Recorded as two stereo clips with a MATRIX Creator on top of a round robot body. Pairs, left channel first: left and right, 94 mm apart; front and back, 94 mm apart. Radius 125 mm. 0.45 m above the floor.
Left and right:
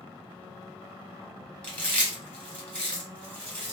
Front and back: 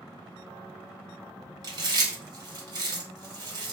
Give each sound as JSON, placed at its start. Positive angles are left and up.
{"t": 1.6, "sound": "chewing", "azimuth_deg": 160, "distance_m": 1.4}